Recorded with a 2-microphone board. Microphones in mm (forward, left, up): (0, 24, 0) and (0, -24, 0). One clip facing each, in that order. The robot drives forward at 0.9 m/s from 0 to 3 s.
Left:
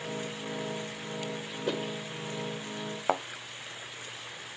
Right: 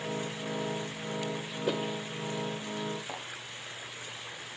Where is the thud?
85° left, 0.8 m.